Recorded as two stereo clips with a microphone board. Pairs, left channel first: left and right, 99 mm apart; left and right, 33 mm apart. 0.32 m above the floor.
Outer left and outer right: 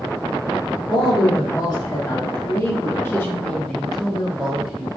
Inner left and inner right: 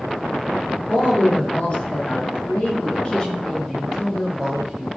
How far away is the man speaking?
About 2.0 m.